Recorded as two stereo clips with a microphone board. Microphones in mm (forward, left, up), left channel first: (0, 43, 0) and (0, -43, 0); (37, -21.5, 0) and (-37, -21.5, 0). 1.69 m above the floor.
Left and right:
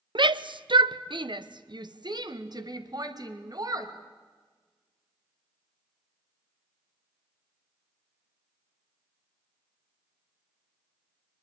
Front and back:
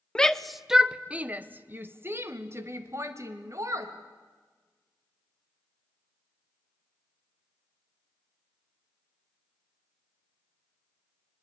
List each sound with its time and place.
0.1 s a shout: 80° right, 0.8 m; by 3.9 s 135° right, 2.5 m